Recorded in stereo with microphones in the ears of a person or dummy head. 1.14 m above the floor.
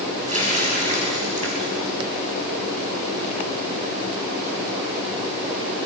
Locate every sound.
0.3 s a running tap: 35° right (ahead or behind), 5 m